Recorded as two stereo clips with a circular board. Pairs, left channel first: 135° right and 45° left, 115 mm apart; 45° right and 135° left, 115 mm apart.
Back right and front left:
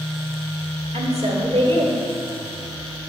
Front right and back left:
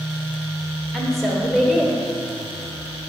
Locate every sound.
0.9 s a woman speaking: 40° left, 1.8 m; by 1.9 s 50° left, 2.5 m